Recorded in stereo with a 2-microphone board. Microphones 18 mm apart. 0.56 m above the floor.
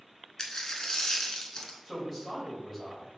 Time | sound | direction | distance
0.4 | a dropped coin | 35° left (ahead or behind) | 0.7 m
1.9 | a woman speaking | 15° left (ahead or behind) | 2 m